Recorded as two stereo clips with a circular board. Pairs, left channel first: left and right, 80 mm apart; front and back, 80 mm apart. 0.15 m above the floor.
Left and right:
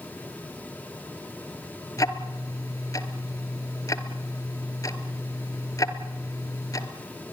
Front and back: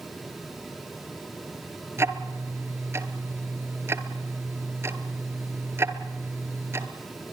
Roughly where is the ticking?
Behind left.